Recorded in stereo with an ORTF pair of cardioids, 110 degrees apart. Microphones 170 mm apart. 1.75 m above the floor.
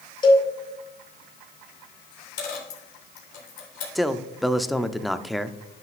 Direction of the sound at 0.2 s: 30° left.